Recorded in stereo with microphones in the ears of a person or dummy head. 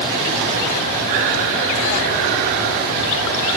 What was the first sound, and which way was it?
Only background noise.